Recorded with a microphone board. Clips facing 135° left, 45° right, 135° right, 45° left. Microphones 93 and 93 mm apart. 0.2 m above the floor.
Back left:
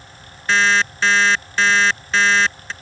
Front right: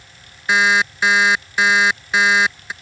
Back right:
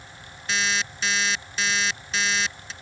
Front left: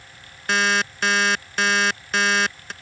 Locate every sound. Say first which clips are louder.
0.5 s an alarm clock: front right 1 dB, front left 6 dB; 30° left